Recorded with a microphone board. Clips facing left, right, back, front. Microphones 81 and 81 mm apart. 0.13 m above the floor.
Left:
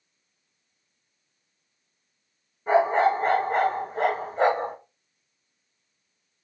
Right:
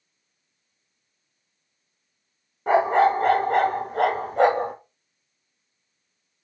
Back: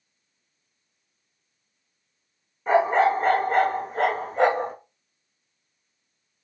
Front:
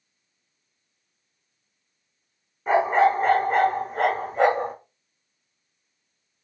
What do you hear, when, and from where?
2.7 s a dog barking: 90° right, 1.3 m